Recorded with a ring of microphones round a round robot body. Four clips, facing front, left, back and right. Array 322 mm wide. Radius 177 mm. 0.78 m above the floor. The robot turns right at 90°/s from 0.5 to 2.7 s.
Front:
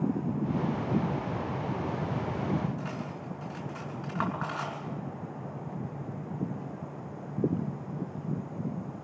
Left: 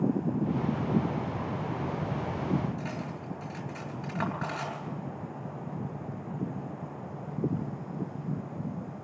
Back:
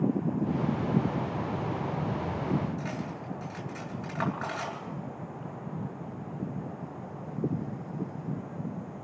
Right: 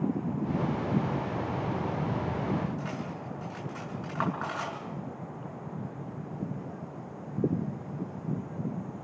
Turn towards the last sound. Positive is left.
turn(degrees=130)